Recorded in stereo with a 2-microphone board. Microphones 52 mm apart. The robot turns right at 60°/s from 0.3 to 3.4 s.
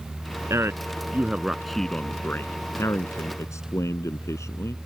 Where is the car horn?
No car horn in this recording.